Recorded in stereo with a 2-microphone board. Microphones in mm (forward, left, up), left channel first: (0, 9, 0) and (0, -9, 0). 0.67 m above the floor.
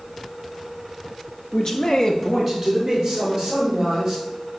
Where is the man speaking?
35° left (ahead or behind), 0.9 m; by 4.2 s 15° right (ahead or behind), 3.5 m.